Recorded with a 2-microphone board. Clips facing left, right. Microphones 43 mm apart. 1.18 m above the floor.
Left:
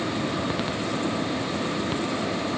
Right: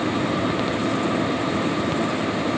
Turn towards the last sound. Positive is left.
No sound to turn to.